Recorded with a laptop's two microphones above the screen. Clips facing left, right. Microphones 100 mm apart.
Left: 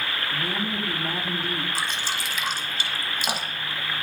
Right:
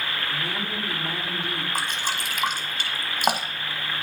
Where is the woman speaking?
50° left (ahead or behind), 1.5 m.